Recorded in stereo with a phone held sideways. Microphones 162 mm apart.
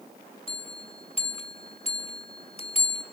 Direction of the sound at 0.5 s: 35° left (ahead or behind).